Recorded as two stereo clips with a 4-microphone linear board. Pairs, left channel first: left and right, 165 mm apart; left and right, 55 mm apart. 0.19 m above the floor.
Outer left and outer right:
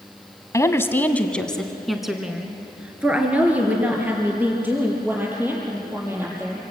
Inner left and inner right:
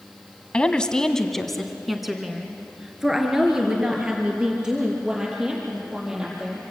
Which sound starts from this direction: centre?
A woman speaking, at 0.5 s.